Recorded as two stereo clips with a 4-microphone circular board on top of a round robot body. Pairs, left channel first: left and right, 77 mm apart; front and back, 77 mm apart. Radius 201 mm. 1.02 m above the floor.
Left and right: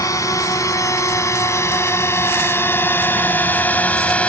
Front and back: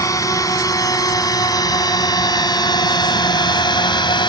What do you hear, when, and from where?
0.0 s a drone: 45° left; by 4.3 s 15° left